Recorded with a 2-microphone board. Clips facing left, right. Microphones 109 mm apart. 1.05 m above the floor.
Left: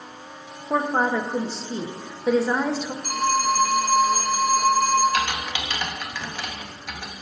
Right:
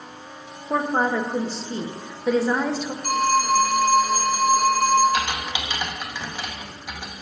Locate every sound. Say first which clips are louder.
0.7 s a woman speaking: even; 5° left (ahead or behind), 0.9 m
3.0 s a phone ringing: right 2 dB; 70° right (ahead or behind), 3 m
5.1 s typing on a keyboard: even; 15° right (ahead or behind), 1.1 m